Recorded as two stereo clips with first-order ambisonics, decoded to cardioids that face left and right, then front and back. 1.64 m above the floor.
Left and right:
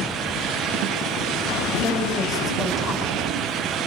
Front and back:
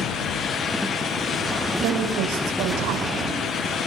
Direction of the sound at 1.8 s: 155° left.